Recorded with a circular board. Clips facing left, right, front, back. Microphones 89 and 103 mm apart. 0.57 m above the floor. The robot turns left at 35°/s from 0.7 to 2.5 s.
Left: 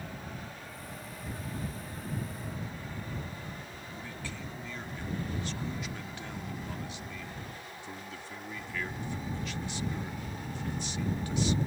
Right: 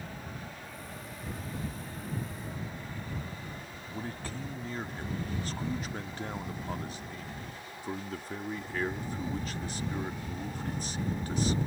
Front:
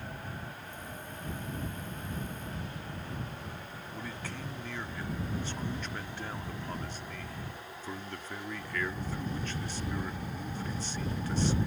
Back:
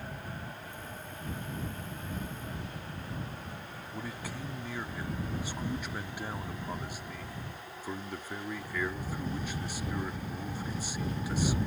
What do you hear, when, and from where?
3.9 s a man speaking: 110° right